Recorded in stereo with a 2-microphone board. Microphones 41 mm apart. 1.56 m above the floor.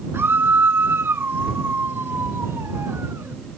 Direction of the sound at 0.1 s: 65° right (ahead or behind).